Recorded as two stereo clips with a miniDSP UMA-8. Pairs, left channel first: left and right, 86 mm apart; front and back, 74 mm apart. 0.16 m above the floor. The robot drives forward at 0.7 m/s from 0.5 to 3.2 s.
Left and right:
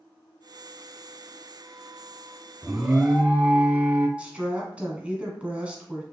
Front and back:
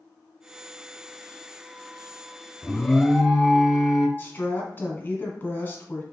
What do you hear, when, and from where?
2.6 s an alarm: 35° right, 0.8 m; by 4.1 s 115° right, 0.7 m
4.2 s a woman speaking: 30° right, 1.1 m